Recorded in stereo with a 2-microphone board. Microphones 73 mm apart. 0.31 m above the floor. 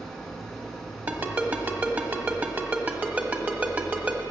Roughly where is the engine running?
Centre.